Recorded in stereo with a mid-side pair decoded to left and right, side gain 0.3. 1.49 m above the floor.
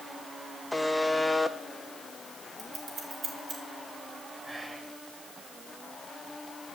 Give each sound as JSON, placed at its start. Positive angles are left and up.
{"t": 0.7, "sound": "a buzzer", "azimuth_deg": 10, "distance_m": 1.1}
{"t": 2.6, "sound": "scissors", "azimuth_deg": -65, "distance_m": 3.0}
{"t": 4.5, "sound": "whispering", "azimuth_deg": -30, "distance_m": 8.0}